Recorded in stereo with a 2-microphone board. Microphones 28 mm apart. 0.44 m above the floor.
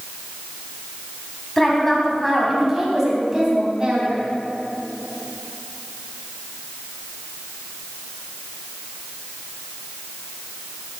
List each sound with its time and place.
1.6 s a woman speaking: 15° left (ahead or behind), 4 m; by 4.2 s 35° right (ahead or behind), 4 m